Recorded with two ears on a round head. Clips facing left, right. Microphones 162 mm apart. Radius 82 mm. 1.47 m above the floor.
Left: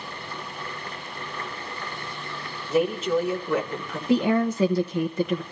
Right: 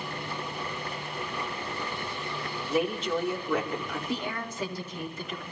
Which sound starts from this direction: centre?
A woman speaking, at 2.7 s.